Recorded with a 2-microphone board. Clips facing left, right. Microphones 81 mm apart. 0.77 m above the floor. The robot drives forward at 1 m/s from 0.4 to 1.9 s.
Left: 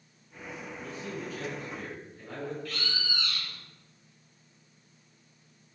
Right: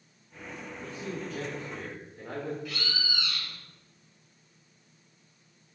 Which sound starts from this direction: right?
A man speaking, at 0.8 s.